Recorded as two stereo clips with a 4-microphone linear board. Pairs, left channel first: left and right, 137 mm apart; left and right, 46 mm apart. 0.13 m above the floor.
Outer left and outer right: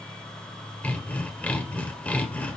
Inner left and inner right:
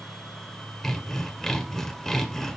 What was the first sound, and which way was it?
Sawing, 10° left (ahead or behind).